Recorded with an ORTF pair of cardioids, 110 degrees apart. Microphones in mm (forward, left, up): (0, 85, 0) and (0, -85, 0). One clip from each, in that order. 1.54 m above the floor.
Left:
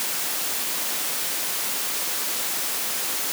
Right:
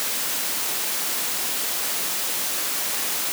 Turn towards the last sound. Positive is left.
No sound to turn to.